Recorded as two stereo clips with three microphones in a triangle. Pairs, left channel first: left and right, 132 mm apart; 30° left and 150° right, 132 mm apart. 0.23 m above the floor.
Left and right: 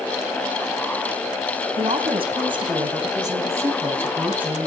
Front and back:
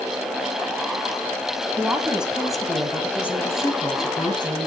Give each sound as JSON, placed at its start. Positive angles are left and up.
{"t": 1.8, "sound": "a woman speaking", "azimuth_deg": -80, "distance_m": 1.8}